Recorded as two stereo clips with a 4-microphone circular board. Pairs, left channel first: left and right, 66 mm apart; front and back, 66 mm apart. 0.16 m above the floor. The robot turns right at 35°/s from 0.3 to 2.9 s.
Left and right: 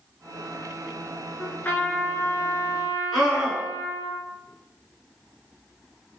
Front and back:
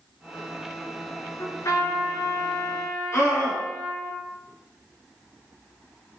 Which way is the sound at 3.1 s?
5° right.